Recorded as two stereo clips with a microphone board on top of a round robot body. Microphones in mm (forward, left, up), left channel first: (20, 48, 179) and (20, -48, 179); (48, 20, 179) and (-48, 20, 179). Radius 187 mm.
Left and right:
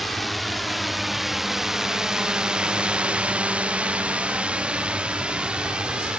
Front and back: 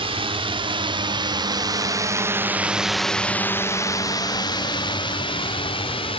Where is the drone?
Straight behind; by 6.2 s 10° right.